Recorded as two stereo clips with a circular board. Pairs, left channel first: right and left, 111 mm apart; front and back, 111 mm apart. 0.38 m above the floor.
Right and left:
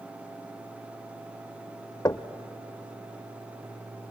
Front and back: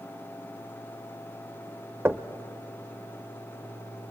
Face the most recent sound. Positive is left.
turn(degrees=-120)